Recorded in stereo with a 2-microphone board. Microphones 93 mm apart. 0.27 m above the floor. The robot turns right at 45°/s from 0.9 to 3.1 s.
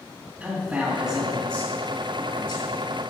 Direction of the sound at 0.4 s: 25° right.